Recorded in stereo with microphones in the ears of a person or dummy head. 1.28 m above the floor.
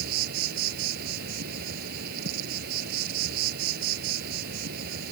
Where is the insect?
55° right (ahead or behind).